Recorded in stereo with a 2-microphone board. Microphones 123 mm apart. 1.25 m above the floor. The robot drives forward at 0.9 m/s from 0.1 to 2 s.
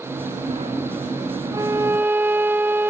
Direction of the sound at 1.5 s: 30° right (ahead or behind).